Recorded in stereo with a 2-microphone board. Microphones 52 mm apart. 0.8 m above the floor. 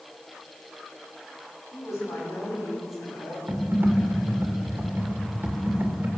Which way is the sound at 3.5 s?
40° right (ahead or behind).